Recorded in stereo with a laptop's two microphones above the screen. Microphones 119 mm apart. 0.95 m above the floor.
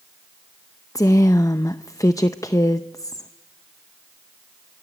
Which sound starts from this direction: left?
A woman speaking, at 0.9 s.